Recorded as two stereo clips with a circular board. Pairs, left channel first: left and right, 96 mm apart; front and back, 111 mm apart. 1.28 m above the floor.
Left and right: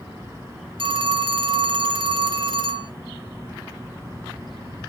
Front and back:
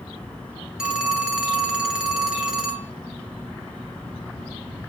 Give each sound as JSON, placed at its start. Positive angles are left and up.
{"t": 0.8, "sound": "a phone ringing", "azimuth_deg": -95, "distance_m": 0.9}